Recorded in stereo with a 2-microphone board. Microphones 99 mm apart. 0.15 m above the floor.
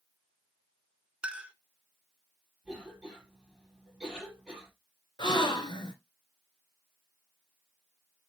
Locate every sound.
1.2 s a clink: 10° right (ahead or behind), 0.8 m
2.6 s a cough: 10° right (ahead or behind), 4.5 m
5.2 s a gasp: 55° left (ahead or behind), 1.9 m